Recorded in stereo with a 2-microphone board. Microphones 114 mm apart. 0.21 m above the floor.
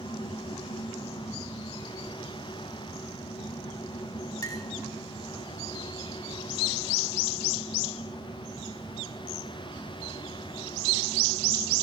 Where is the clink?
30° left (ahead or behind), 1.0 m.